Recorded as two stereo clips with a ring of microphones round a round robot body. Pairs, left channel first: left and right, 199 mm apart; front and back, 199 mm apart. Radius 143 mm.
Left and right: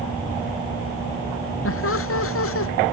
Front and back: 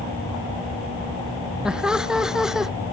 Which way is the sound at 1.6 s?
95° left.